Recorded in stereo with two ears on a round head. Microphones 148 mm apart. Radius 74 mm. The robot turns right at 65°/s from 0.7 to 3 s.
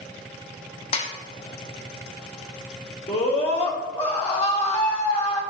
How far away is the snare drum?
About 1.0 m.